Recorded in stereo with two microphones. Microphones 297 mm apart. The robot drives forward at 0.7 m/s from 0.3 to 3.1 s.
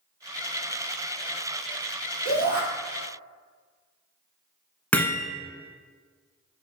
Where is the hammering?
5° left (ahead or behind), 1.6 m.